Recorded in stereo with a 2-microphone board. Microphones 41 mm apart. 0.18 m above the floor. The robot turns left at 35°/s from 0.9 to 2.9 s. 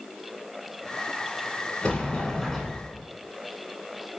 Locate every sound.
1.8 s a sliding door: 35° left, 0.6 m; by 3.0 s 5° right, 0.6 m